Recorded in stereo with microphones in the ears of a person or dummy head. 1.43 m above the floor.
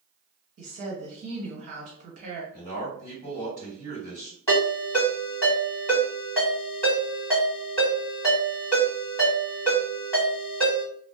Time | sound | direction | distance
0.6 | a woman speaking | 40° right (ahead or behind) | 1.4 m
2.5 | a man speaking | 20° left (ahead or behind) | 1.8 m
4.5 | a ringtone | 15° left (ahead or behind) | 1.7 m